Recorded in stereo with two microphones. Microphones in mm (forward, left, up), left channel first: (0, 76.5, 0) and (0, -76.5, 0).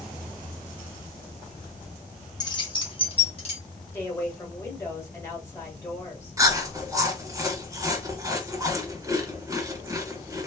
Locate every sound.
2.4 s keys jangling: 25° left (ahead or behind), 0.6 m; by 3.6 s 40° left (ahead or behind), 1.0 m
3.9 s a woman speaking: 15° left (ahead or behind), 1.3 m
6.4 s chewing: 20° right (ahead or behind), 0.8 m